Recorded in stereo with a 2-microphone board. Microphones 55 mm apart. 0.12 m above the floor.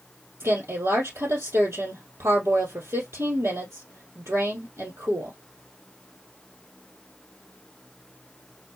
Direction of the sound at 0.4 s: 55° right (ahead or behind).